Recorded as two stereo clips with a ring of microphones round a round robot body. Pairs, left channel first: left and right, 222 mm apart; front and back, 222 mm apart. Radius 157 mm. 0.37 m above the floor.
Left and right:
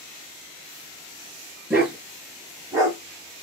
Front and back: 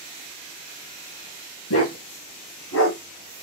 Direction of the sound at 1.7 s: 10° right.